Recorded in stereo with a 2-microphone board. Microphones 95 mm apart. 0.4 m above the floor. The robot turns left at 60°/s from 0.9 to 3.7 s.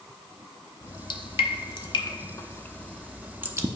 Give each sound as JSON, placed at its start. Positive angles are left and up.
{"t": 0.8, "sound": "dripping", "side_deg": 50, "distance_m": 0.6}